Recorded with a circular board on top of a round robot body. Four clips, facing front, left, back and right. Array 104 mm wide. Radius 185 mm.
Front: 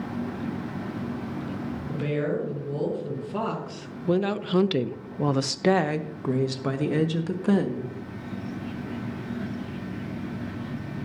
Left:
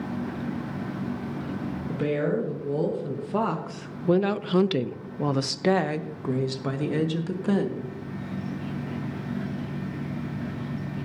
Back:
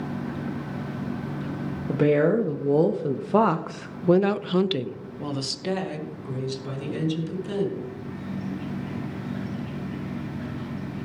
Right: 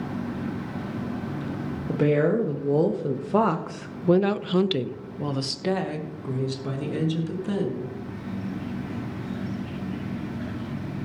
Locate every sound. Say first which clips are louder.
1.9 s a woman speaking: right 5 dB, back 8 dB; 155° right, 1.4 m; by 7.9 s 30° left, 1.8 m